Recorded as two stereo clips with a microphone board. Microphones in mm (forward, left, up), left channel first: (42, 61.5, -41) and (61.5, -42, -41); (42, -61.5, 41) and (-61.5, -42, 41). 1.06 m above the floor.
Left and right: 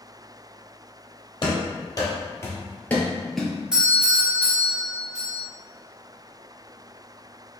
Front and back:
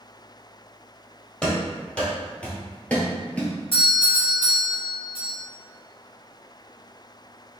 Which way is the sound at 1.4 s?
70° left.